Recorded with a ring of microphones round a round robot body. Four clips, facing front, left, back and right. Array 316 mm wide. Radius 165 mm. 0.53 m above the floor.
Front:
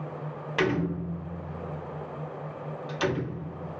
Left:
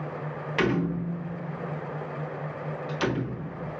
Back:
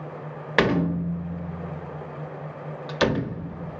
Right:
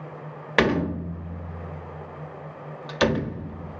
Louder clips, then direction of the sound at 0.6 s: Right 4 dB, back 5 dB; 140° right.